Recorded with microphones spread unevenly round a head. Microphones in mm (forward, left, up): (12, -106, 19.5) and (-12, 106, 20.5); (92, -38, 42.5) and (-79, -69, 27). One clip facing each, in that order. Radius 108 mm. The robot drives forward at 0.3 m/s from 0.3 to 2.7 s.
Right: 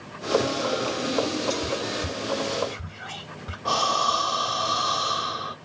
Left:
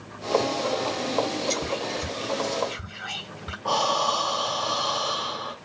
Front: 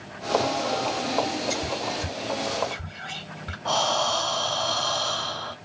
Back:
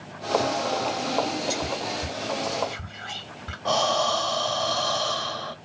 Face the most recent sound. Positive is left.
turn(degrees=-120)